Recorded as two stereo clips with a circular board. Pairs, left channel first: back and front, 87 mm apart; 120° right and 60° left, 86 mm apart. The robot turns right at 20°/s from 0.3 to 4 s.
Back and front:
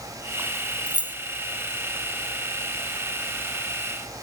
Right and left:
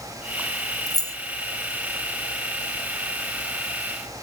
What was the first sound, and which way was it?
Keys jangling, 75° right.